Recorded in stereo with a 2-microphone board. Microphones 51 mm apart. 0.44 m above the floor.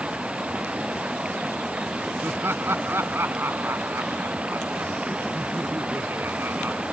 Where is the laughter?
50° right (ahead or behind).